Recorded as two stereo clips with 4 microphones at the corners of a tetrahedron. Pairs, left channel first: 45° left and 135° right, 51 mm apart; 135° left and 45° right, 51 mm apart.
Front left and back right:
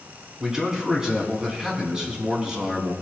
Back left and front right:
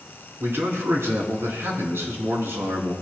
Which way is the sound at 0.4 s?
60° right.